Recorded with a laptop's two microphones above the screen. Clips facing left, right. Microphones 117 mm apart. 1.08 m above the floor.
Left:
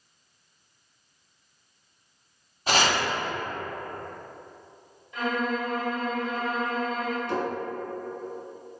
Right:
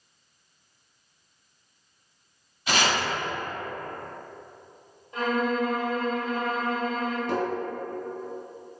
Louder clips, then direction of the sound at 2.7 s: Left 1 dB; 45° left (ahead or behind).